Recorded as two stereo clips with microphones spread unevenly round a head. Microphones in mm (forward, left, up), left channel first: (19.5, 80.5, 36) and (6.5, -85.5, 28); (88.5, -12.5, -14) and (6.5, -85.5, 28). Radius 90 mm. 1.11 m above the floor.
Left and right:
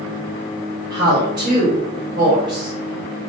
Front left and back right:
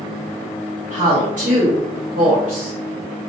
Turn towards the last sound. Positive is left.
turn(degrees=-160)